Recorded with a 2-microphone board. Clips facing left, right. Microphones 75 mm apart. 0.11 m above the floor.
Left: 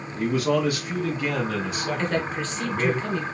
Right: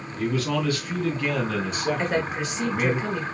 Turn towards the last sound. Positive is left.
turn(degrees=-15)  # may be behind; listen again after turning